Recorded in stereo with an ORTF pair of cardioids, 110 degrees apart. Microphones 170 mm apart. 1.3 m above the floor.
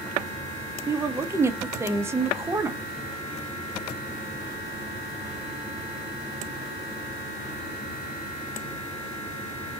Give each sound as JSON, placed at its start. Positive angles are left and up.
{"t": 0.9, "sound": "a woman speaking", "azimuth_deg": -15, "distance_m": 0.7}